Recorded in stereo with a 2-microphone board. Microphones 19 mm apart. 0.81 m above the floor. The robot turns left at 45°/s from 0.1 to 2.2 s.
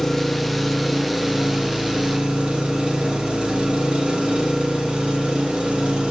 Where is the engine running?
20° left, 0.9 m; by 6.1 s 75° right, 0.9 m.